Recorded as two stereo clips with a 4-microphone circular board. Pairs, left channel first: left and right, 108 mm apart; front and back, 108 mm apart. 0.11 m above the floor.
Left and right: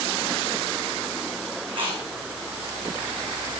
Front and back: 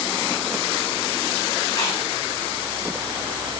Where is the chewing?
55° right, 5.5 m.